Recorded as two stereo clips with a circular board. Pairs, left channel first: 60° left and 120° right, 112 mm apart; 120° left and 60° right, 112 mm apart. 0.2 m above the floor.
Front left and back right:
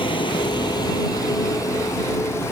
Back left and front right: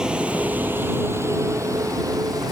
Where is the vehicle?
25° left; by 2.5 s 5° right.